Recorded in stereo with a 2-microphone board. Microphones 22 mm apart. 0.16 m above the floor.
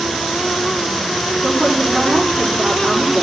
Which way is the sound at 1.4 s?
40° right (ahead or behind).